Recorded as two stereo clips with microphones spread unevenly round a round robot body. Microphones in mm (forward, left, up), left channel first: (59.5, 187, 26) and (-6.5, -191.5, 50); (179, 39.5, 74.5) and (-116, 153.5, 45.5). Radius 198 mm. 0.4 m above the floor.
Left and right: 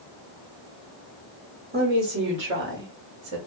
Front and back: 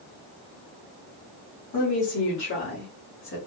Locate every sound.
1.7 s a woman speaking: 35° right, 1.9 m; by 3.4 s 60° right, 1.3 m